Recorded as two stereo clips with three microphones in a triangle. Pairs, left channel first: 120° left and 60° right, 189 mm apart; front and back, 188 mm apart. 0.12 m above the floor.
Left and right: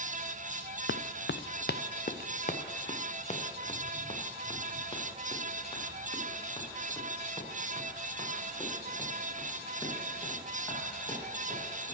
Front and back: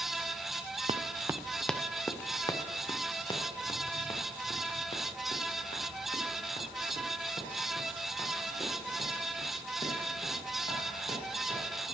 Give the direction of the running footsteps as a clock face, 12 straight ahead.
8 o'clock.